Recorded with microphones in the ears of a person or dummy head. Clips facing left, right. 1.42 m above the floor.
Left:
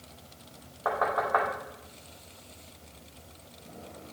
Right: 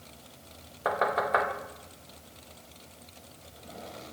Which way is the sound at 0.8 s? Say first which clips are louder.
Right 1 dB; 35° right (ahead or behind).